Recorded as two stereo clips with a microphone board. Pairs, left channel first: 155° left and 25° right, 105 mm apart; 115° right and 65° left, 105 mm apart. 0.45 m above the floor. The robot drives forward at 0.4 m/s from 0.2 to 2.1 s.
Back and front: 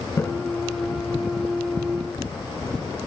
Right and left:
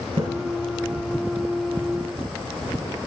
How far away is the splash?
About 3 m.